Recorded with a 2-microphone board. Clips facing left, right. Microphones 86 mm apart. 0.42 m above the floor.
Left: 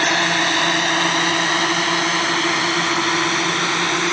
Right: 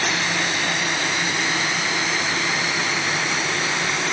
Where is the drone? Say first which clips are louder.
Left 5 dB; 60° left (ahead or behind); by 4.1 s 70° left (ahead or behind).